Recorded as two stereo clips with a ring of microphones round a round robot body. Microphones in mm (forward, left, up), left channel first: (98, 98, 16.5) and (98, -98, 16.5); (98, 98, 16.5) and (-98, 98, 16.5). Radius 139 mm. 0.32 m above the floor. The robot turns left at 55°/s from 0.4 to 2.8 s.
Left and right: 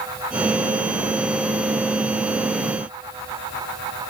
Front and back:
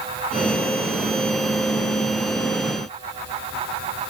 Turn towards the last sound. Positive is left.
No sound to turn to.